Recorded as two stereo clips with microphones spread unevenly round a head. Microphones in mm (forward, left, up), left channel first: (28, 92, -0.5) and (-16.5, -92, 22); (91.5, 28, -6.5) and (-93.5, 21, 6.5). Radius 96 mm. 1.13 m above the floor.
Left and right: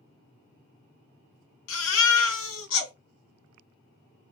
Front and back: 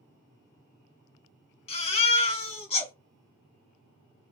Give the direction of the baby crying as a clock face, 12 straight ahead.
10 o'clock.